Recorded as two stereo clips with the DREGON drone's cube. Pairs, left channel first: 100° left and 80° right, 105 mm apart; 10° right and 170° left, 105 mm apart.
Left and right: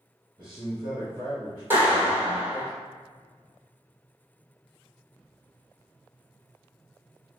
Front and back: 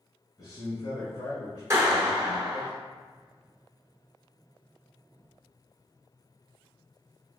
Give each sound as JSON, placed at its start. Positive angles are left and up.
{"t": 0.4, "sound": "a man speaking", "azimuth_deg": -40, "distance_m": 1.8}
{"t": 1.7, "sound": "a clap", "azimuth_deg": -140, "distance_m": 1.3}